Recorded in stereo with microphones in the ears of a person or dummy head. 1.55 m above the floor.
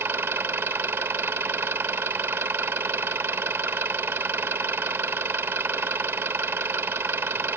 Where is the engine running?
10° right (ahead or behind).